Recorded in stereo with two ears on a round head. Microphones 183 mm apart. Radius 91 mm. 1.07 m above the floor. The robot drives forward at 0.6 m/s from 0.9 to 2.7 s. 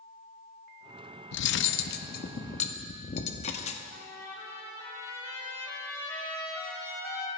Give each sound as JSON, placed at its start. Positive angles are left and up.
{"t": 1.3, "sound": "cutlery clinking", "side_deg": 60, "distance_m": 0.6}
{"t": 3.9, "sound": "a trumpet", "side_deg": 15, "distance_m": 3.5}